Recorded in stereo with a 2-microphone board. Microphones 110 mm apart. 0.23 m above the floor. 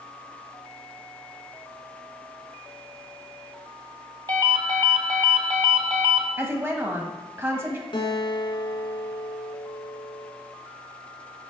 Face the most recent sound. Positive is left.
turn(degrees=50)  # may be behind; listen again after turning